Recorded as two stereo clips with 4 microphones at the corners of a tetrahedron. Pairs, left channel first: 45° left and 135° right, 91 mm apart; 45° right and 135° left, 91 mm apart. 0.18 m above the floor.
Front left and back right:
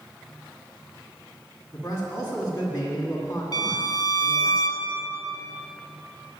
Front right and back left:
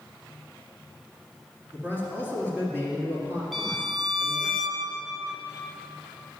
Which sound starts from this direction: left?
A man speaking, at 1.7 s.